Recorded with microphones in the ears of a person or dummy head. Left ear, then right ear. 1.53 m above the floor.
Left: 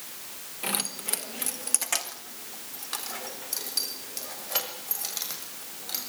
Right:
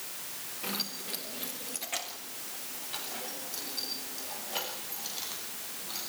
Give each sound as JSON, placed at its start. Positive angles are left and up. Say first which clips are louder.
{"t": 0.6, "sound": "keys jangling", "louder": "left 4 dB", "side_deg": 30, "distance_m": 1.0}